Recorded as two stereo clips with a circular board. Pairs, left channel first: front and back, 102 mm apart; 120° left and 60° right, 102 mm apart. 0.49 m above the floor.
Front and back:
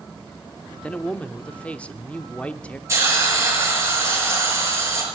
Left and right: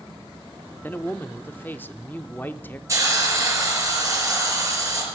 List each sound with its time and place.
0.8 s a man speaking: 65° left, 0.8 m
2.9 s a hiss: 120° right, 5 m